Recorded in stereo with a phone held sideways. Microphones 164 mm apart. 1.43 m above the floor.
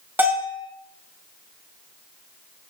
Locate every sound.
0.2 s a bell: 10° right (ahead or behind), 5.5 m